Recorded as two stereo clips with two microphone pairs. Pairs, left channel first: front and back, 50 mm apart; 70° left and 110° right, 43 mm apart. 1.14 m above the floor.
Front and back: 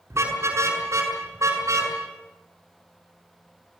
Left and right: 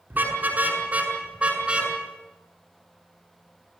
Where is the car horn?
155° right, 6.5 m; by 1.9 s 175° right, 6.5 m.